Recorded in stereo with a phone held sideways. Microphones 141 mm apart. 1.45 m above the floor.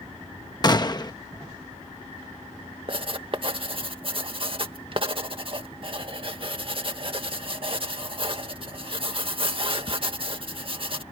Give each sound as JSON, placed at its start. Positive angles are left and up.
{"t": 0.6, "sound": "a gunshot", "side_deg": 30}
{"t": 2.9, "sound": "writing", "side_deg": -40}